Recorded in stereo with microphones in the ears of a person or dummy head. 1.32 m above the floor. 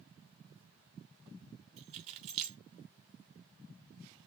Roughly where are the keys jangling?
Right.